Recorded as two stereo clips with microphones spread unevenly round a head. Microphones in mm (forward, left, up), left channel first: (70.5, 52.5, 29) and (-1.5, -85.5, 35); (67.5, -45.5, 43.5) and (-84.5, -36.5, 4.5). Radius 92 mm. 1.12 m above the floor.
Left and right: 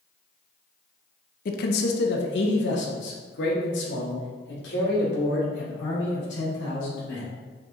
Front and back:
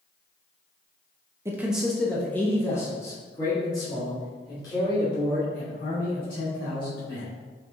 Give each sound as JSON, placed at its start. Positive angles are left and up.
{"t": 1.4, "sound": "a man speaking", "azimuth_deg": 105, "distance_m": 0.5}